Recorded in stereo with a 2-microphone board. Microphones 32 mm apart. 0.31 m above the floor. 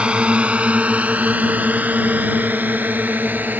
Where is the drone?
35° right (ahead or behind); by 3.6 s 70° right (ahead or behind).